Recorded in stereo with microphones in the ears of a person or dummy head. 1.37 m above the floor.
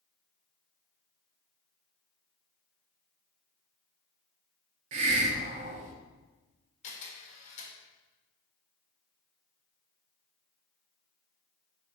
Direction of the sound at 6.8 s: 40° left (ahead or behind).